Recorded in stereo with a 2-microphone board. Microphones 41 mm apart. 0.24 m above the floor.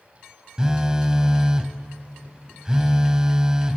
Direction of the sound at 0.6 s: 20° right (ahead or behind).